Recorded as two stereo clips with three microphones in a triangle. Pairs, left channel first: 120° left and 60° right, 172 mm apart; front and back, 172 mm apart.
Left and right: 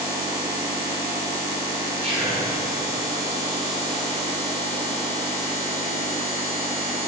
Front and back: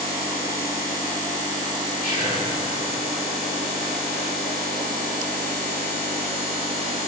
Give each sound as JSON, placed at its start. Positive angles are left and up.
{"t": 2.0, "sound": "whispering", "azimuth_deg": -15, "distance_m": 3.5}